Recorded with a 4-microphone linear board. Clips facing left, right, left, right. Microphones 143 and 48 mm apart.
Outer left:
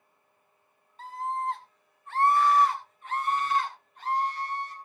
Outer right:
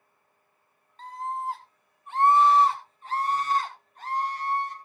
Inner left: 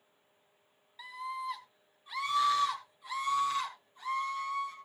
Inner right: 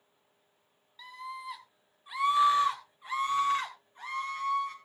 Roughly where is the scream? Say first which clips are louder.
Outer left 1 dB, inner left 3 dB; centre.